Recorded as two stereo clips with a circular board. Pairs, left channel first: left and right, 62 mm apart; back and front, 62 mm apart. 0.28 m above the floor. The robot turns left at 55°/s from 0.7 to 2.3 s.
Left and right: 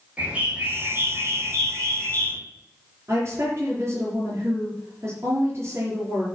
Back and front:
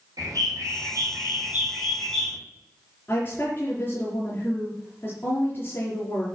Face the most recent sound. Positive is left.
turn(degrees=-130)